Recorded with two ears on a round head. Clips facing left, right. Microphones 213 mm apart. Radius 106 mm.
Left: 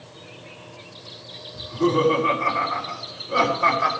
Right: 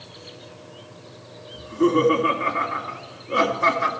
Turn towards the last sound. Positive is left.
turn(degrees=-35)  # may be behind; listen again after turning